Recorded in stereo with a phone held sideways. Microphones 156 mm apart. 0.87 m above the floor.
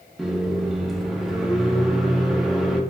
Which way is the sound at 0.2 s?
Centre (ahead or behind).